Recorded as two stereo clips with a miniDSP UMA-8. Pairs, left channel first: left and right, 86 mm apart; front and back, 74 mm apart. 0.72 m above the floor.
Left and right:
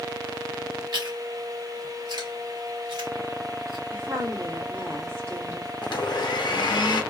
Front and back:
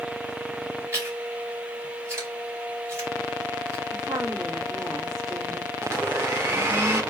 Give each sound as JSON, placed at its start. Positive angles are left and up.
{"t": 0.9, "sound": "chewing", "azimuth_deg": -125, "distance_m": 2.0}
{"t": 3.9, "sound": "a woman speaking", "azimuth_deg": -145, "distance_m": 2.5}
{"t": 5.8, "sound": "a blender", "azimuth_deg": 120, "distance_m": 1.0}